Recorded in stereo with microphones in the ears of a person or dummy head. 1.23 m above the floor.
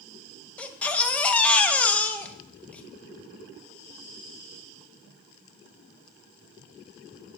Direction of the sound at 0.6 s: 5° left (ahead or behind).